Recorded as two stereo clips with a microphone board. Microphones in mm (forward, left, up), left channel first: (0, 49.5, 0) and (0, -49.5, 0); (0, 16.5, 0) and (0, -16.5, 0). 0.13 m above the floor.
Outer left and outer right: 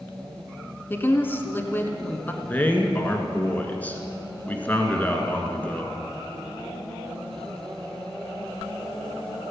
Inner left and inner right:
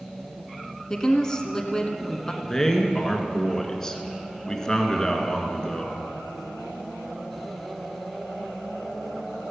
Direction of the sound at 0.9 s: 20° left (ahead or behind).